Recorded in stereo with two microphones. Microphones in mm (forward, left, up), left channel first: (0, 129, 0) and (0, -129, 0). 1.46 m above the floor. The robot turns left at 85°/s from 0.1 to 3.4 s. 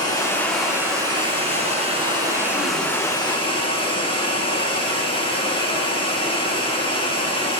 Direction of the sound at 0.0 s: 15° left (ahead or behind).